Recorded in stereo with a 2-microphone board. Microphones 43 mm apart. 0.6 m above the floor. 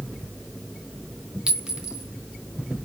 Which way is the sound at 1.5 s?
15° right (ahead or behind).